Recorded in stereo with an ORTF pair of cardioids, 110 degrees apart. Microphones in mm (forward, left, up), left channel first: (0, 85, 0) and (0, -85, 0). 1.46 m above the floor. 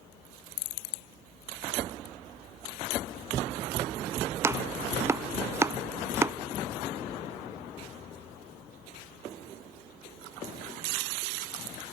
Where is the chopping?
15° right, 0.7 m.